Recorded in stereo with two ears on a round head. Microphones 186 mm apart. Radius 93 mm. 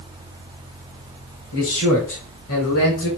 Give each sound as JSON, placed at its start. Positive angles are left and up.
{"t": 1.5, "sound": "a man speaking", "side_deg": 80, "distance_m": 5.0}